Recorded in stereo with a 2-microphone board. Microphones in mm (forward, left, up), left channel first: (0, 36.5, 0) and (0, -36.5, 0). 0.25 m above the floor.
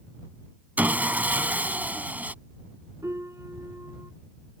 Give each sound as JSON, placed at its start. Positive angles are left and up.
{"t": 0.8, "sound": "sawing", "side_deg": -25}
{"t": 3.0, "sound": "a piano", "side_deg": -45}